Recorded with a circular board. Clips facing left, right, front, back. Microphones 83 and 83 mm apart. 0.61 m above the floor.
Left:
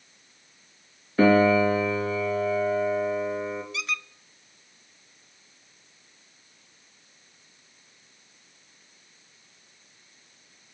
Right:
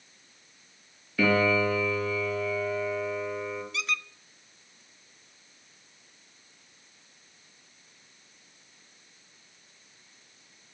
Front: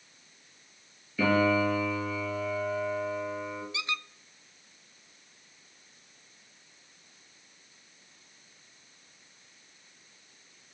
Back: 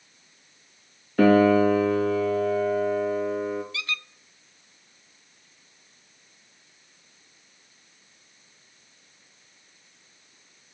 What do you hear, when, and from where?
1.2 s a piano: 145° left, 2.5 m
3.7 s a squeak: straight ahead, 0.6 m